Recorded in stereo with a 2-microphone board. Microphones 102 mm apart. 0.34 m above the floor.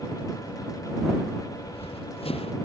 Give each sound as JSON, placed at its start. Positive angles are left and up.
{"t": 1.6, "sound": "running footsteps", "side_deg": 70}